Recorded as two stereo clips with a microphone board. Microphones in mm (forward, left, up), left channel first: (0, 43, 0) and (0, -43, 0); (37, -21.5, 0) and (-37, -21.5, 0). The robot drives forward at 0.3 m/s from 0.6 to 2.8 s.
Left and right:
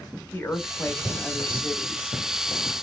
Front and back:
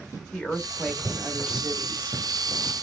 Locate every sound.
0.3 s a woman speaking: 70° left, 0.8 m; by 2.2 s 135° left, 0.9 m